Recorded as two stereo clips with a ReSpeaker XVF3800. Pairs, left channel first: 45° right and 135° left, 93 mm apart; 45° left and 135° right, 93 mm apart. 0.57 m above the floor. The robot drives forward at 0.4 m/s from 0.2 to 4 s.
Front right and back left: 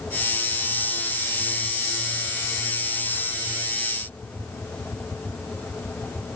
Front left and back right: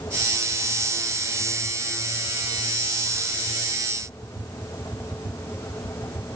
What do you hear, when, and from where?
Only background noise.